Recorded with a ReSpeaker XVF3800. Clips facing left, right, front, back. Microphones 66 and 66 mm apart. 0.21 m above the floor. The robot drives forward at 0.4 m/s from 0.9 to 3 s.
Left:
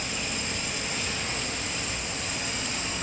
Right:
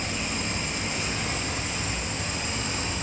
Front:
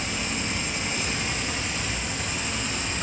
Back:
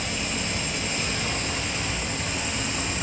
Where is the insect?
50° right, 1.6 m; by 3.0 s 100° right, 1.4 m.